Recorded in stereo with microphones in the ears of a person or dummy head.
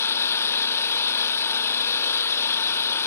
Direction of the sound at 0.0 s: 15° left (ahead or behind).